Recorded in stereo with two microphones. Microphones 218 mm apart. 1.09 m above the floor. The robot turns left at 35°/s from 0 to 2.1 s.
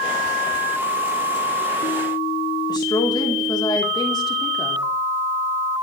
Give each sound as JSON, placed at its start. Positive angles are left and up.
{"t": 2.7, "sound": "a woman speaking", "side_deg": 20, "distance_m": 3.0}